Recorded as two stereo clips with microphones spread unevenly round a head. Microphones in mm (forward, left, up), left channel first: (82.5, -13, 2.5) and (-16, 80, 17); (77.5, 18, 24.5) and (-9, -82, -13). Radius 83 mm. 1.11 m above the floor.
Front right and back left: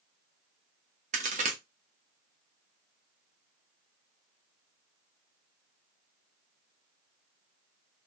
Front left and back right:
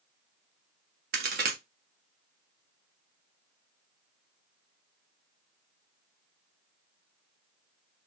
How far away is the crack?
About 0.6 m.